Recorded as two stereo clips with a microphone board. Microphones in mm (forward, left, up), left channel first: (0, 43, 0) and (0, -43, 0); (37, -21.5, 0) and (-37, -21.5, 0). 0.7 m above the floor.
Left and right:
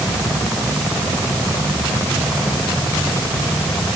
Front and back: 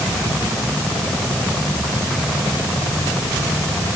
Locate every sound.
Only background noise.